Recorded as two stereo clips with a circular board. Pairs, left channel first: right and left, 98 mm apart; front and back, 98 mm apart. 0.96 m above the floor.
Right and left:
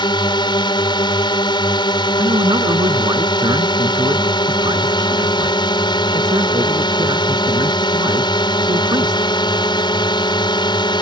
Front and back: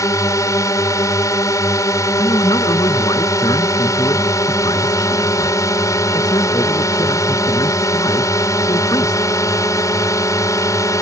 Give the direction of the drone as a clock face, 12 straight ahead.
2 o'clock.